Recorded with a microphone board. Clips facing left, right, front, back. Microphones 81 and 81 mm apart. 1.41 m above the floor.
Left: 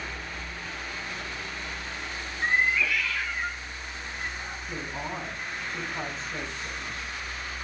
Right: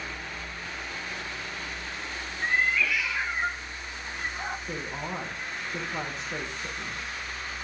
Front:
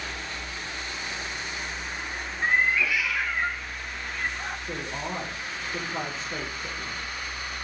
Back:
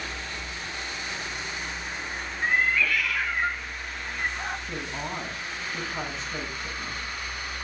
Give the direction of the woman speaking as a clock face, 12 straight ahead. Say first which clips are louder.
Even, front 1 dB; 2 o'clock.